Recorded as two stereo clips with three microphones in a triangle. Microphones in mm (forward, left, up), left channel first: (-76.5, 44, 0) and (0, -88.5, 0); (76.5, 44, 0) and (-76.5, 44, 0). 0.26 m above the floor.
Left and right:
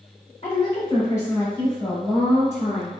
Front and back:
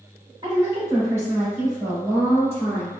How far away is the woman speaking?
About 1.8 m.